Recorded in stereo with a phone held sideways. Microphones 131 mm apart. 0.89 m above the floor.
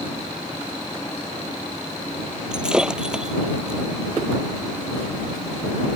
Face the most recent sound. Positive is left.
turn(degrees=-5)  # may be behind; listen again after turning